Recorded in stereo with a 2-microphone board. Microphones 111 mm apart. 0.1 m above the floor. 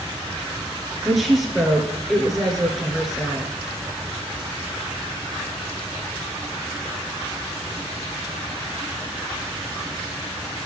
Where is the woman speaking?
Centre (ahead or behind), 1.5 m.